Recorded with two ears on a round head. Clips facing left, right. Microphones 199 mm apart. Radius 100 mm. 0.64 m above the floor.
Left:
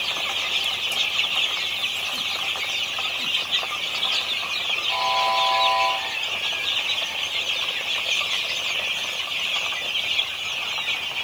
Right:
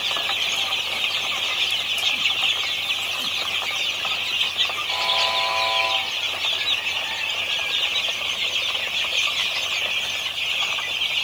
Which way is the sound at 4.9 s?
Centre (ahead or behind).